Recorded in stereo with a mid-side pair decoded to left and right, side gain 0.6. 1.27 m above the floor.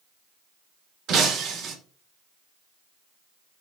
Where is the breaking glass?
55° right, 2 m.